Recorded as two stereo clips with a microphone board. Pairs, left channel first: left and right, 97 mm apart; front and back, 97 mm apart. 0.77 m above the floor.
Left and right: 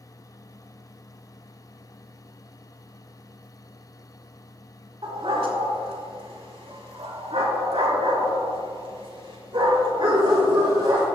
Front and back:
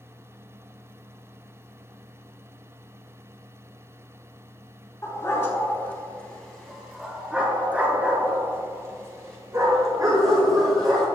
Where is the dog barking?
60° right, 3.5 m; by 11.1 s 130° right, 6.5 m.